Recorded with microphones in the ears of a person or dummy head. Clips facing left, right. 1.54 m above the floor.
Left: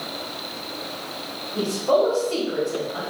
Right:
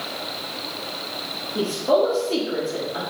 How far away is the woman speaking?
About 0.9 m.